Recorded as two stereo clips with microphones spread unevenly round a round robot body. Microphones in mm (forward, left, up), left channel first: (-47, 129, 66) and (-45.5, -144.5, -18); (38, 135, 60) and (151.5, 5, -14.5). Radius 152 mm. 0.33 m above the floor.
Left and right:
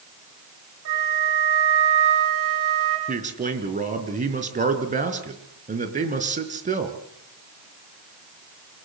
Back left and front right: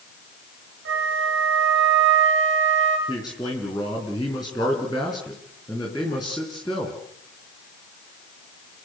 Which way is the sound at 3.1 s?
145° right.